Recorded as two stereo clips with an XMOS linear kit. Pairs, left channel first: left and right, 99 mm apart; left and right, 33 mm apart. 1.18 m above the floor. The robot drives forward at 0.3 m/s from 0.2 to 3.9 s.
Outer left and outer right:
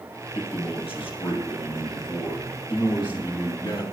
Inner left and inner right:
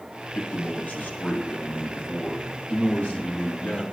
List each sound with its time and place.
0.3 s a man speaking: 70° left (ahead or behind), 2.5 m; by 3.8 s 50° left (ahead or behind), 3 m